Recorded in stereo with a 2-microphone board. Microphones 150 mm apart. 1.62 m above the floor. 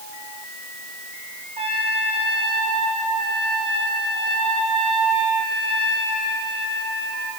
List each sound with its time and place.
1.6 s a trumpet: 45° right (ahead or behind), 4 m